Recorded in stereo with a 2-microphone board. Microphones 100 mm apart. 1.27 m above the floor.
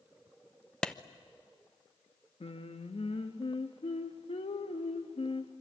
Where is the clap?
10° left (ahead or behind), 0.8 m.